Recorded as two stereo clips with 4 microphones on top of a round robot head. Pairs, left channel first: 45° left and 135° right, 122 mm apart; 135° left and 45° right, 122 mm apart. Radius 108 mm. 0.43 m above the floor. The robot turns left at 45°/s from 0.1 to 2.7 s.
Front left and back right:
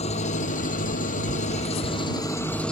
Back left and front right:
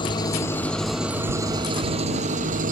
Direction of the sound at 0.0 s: 80° left.